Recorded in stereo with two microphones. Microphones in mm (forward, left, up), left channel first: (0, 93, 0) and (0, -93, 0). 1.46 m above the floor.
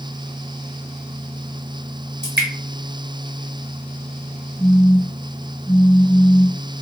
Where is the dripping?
70° right (ahead or behind), 1.5 m.